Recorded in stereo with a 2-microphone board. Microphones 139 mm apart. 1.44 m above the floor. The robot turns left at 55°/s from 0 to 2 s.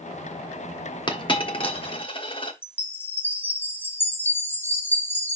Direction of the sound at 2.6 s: 15° left (ahead or behind).